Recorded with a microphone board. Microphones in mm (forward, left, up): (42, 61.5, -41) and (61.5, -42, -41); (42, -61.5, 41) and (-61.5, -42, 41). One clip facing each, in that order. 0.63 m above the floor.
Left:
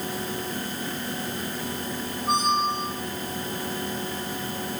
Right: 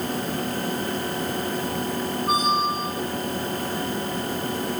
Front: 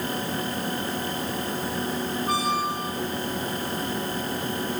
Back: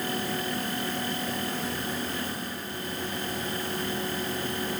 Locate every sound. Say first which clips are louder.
2.3 s a squeak: even, front 10 dB; 5° left